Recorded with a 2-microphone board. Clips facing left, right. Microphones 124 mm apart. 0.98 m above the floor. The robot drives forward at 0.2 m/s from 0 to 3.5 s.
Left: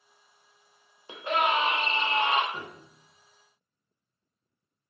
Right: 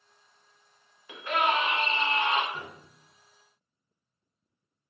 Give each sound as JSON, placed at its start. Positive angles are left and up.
{"t": 1.1, "sound": "a scream", "side_deg": 25, "distance_m": 0.8}
{"t": 2.5, "sound": "a piano", "side_deg": 20, "distance_m": 1.3}